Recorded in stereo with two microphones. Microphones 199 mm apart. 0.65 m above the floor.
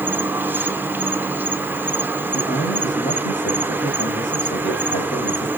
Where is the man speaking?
65° left (ahead or behind), 4 m.